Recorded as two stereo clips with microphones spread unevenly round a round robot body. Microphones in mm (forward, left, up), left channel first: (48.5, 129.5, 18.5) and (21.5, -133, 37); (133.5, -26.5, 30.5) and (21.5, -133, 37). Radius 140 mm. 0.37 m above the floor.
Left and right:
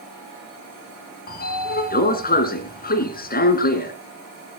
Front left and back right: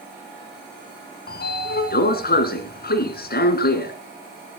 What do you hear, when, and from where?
1.3 s a sliding door: 25° left, 1.9 m